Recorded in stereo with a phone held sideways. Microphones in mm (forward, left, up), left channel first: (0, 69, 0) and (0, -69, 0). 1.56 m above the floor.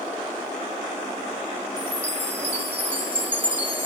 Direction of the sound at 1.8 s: 15° right (ahead or behind).